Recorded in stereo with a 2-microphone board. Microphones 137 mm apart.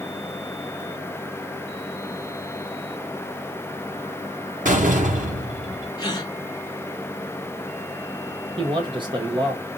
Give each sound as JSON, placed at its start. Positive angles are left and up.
{"t": 4.7, "sound": "a door slam", "side_deg": -80, "distance_m": 1.2}
{"t": 6.0, "sound": "a gasp", "side_deg": 30, "distance_m": 0.9}
{"t": 8.6, "sound": "a man speaking", "side_deg": -40, "distance_m": 1.2}